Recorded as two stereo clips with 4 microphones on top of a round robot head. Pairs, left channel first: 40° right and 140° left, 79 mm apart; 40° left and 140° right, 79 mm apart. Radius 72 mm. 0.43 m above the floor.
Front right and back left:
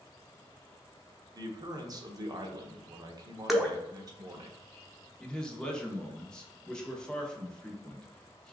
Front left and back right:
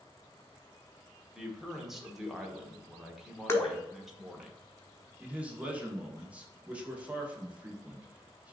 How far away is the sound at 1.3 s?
About 1.2 m.